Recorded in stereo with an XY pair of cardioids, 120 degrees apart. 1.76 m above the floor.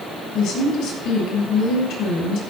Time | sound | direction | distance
0.3 | a woman speaking | 70° left | 8 m